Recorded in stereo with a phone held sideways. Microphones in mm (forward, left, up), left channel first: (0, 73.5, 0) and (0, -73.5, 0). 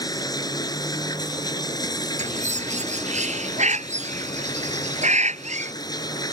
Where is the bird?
50° right (ahead or behind).